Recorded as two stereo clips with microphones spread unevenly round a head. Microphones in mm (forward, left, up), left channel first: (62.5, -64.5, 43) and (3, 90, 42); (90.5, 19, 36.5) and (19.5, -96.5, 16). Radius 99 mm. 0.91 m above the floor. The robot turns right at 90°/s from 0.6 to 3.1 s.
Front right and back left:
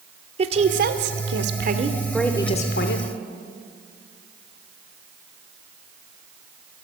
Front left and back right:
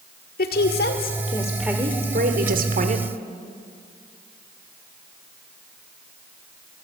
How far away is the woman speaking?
About 2.5 m.